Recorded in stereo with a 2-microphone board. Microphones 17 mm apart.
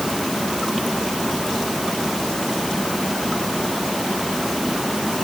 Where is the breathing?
I don't hear breathing.